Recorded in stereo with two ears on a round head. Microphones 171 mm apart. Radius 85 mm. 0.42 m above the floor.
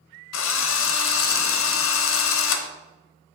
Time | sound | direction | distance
0.3 | a drill | 75° left (ahead or behind) | 0.8 m